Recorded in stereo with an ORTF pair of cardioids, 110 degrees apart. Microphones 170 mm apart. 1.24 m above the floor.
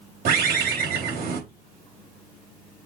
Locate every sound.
0.2 s a bird: 70° right, 3.5 m